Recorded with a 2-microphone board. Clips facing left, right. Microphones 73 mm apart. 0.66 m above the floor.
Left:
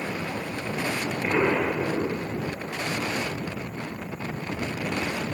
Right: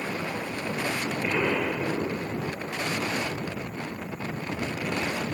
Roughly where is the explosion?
Left.